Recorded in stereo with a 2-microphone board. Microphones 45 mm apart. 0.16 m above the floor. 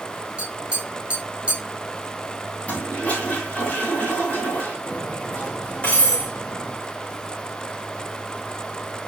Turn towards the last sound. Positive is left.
turn(degrees=30)  # may be behind; listen again after turning